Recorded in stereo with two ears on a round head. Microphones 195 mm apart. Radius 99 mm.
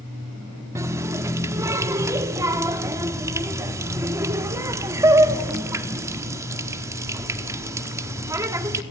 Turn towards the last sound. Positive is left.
turn(degrees=-15)  # may be behind; listen again after turning